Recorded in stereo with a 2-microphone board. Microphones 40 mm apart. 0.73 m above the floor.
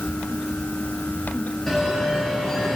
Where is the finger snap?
No finger snap in this recording.